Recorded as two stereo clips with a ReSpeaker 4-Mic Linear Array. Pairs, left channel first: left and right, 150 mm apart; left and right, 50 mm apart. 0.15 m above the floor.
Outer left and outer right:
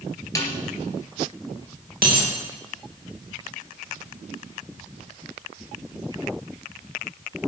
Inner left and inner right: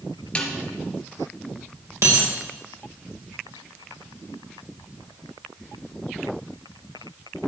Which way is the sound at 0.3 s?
20° left (ahead or behind).